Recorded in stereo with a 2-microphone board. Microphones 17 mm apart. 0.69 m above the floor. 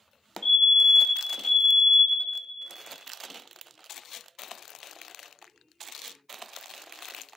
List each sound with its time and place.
0.4 s a fire alarm: 60° left (ahead or behind), 2.5 m